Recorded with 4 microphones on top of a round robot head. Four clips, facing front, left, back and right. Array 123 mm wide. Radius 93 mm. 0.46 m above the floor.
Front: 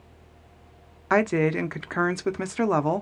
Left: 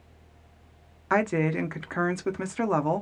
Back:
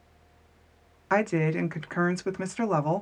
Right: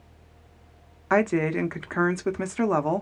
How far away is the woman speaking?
About 0.7 m.